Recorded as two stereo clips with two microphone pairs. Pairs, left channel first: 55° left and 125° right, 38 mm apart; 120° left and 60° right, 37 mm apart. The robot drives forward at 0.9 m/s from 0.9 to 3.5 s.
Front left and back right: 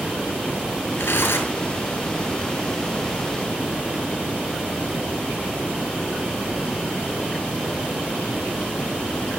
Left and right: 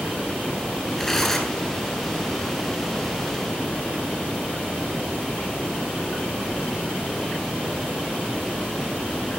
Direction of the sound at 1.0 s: 45° left.